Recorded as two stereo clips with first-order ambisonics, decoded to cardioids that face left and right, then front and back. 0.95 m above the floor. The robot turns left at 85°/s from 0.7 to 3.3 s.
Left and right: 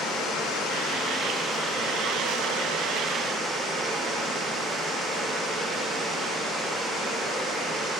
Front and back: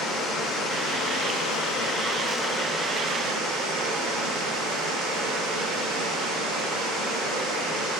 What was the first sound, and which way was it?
Running water, 55° left.